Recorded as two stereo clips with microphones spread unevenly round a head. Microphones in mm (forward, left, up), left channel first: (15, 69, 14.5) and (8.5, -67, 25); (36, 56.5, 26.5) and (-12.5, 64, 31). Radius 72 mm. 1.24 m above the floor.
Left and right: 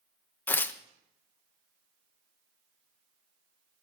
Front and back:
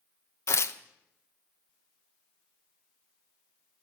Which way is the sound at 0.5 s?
10° left.